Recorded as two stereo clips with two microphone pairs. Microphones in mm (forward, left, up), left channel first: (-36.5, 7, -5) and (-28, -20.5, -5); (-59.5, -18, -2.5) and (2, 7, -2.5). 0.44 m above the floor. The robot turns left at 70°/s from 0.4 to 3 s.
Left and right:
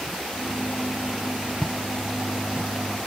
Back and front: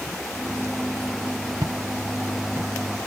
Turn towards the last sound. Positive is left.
turn(degrees=-60)